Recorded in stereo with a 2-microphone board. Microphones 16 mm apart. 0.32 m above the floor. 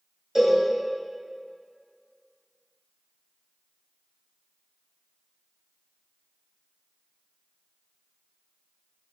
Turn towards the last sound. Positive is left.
turn(degrees=-25)  # may be behind; listen again after turning